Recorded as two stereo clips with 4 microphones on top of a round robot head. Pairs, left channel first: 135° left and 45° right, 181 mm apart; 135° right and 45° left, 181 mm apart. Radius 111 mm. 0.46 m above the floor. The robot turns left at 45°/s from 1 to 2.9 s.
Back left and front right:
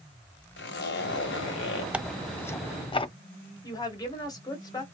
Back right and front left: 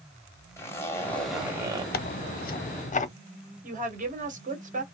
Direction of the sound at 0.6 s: 150° left.